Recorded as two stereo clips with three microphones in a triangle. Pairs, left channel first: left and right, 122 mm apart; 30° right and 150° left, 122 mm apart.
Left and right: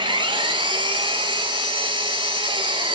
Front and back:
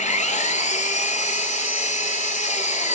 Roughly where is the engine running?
Ahead right.